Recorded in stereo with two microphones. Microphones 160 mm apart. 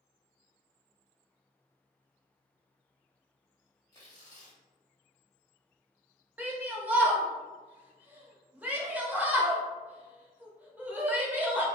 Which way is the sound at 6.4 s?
10° right (ahead or behind).